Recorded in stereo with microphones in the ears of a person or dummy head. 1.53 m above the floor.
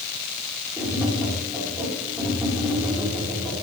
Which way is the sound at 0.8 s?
Centre (ahead or behind).